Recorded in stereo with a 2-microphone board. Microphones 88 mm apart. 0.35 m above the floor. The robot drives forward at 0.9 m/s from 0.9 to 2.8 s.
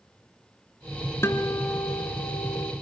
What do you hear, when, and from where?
1.2 s a guitar: 30° left (ahead or behind), 2.5 m; by 2.7 s 60° left (ahead or behind), 1.4 m